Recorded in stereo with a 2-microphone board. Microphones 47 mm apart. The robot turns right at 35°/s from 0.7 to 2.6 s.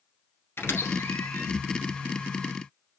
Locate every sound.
0.6 s a squeak: 55° left (ahead or behind), 1.6 m; by 1.5 s 80° left, 1.6 m